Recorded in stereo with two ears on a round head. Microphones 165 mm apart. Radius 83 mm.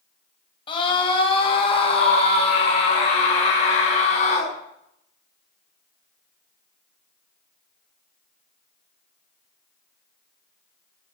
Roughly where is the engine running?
I don't hear an engine running.